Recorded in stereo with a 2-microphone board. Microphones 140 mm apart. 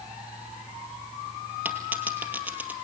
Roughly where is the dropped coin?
Centre.